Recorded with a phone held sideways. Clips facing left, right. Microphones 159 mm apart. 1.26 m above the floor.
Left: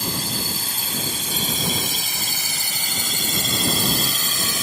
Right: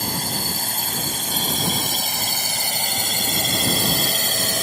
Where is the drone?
50° right (ahead or behind).